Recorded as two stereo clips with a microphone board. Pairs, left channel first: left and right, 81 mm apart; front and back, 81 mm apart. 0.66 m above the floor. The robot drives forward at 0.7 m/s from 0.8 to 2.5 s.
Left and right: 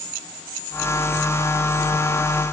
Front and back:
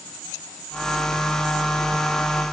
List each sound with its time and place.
Only background noise.